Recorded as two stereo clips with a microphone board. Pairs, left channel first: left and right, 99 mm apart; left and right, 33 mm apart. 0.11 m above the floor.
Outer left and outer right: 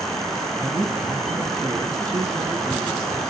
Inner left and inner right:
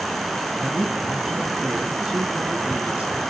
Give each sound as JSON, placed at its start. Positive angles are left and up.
{"t": 0.6, "sound": "a man speaking", "side_deg": -35, "distance_m": 5.5}